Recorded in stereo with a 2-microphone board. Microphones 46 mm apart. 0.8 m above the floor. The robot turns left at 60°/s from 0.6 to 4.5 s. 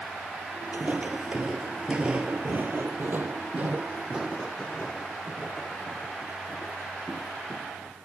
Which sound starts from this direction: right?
Footsteps, at 0.7 s.